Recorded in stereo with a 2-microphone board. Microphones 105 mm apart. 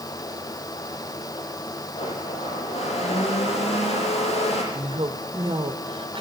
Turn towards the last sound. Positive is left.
turn(degrees=-60)  # may be behind; listen again after turning